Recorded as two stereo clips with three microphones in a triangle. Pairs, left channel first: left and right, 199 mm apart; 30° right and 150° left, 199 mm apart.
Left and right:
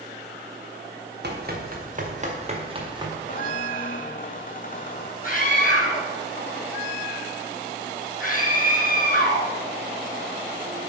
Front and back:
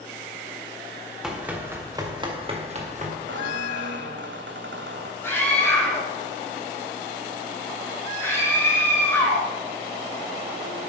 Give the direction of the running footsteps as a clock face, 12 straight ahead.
4 o'clock.